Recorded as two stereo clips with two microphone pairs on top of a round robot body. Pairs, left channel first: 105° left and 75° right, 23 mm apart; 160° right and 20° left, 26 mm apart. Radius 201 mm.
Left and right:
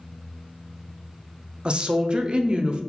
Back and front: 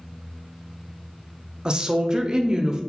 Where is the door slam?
No door slam in this recording.